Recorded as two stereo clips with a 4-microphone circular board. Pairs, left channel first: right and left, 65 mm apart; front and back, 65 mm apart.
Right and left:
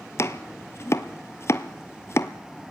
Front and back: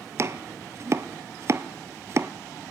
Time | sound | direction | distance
0.2 | chopping | 135° right | 0.9 m